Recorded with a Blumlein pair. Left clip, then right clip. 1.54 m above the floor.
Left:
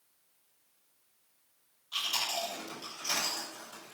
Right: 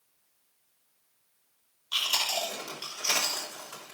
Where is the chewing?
55° right, 6 m.